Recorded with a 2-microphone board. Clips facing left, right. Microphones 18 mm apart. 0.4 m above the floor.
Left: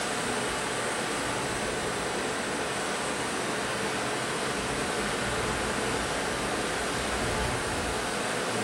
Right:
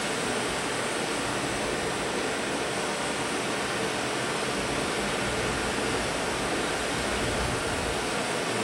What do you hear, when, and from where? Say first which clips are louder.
0.0 s running water: right 1 dB; 60° right (ahead or behind), 0.7 m